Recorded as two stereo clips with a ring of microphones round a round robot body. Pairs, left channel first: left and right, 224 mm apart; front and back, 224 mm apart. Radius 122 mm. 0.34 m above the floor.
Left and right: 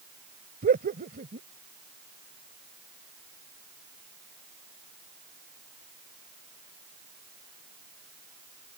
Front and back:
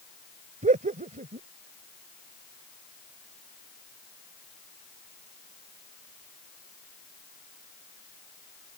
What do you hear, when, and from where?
0.6 s laughter: 135° right